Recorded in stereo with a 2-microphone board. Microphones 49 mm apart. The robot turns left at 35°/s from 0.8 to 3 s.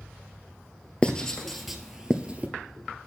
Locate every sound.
1.0 s writing: 20° left (ahead or behind), 1.0 m; by 2.5 s 30° right (ahead or behind), 1.0 m